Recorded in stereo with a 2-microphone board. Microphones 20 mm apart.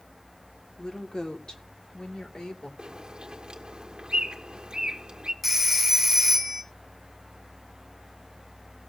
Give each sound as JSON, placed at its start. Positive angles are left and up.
{"t": 0.8, "sound": "a woman speaking", "side_deg": 40, "distance_m": 1.3}
{"t": 2.8, "sound": "a bird", "side_deg": -45, "distance_m": 1.5}
{"t": 5.4, "sound": "a phone ringing", "side_deg": -10, "distance_m": 1.3}